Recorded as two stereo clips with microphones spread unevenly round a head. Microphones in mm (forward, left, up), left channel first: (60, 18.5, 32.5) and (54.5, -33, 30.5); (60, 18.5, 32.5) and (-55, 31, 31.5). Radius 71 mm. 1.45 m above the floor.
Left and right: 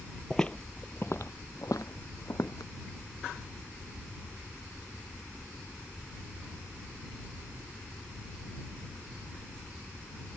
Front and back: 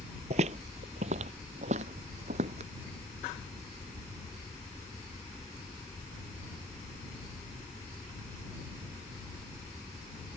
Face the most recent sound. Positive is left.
turn(degrees=145)